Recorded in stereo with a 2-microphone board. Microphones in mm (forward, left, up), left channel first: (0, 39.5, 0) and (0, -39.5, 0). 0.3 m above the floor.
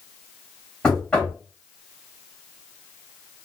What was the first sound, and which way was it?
Knocking, 10° left (ahead or behind).